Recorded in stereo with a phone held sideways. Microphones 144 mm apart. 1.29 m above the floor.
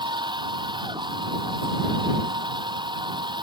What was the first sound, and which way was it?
A machine running, 30° right (ahead or behind).